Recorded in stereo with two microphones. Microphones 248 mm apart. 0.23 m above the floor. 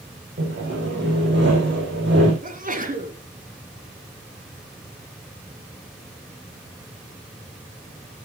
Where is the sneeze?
35° right (ahead or behind), 2 m.